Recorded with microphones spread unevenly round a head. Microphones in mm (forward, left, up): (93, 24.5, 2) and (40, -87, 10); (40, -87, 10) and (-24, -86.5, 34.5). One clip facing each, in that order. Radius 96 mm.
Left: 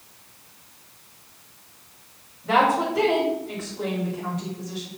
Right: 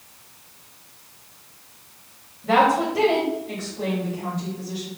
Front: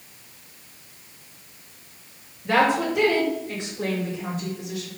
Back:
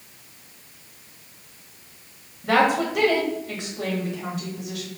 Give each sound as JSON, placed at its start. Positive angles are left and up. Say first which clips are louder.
{"t": 2.4, "sound": "a woman speaking", "louder": "right 2 dB, back 1 dB", "azimuth_deg": 180, "distance_m": 2.5}